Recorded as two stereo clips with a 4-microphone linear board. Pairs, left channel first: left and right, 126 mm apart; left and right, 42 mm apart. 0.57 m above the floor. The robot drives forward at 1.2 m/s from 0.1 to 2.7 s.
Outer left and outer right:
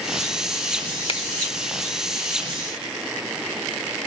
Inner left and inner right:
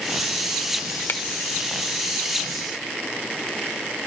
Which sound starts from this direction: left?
A finger snap, at 1.1 s.